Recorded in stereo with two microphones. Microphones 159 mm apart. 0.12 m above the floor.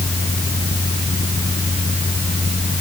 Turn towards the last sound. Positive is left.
No sound to turn to.